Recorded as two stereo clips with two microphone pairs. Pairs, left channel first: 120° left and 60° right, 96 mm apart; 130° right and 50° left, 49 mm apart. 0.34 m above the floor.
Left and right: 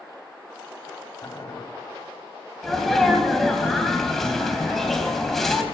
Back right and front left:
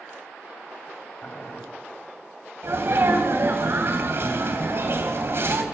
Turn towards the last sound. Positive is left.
turn(degrees=35)